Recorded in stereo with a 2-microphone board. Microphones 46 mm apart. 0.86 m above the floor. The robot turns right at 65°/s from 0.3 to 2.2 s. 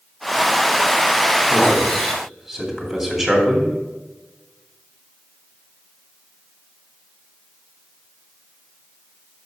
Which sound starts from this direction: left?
A man speaking, at 1.5 s.